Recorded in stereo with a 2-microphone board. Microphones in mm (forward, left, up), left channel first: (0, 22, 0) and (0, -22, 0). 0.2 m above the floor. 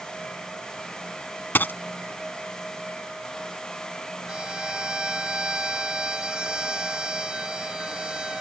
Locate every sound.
1.6 s a dropped coin: 50° left (ahead or behind)
4.3 s a violin: 20° right (ahead or behind)